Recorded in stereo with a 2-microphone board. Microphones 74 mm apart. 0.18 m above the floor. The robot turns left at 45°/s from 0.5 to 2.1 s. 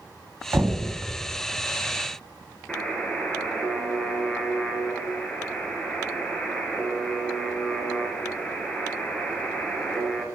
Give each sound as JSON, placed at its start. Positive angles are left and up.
{"t": 0.5, "sound": "knocking", "side_deg": -20, "distance_m": 0.7}
{"t": 2.7, "sound": "a buzzer", "side_deg": 15, "distance_m": 1.0}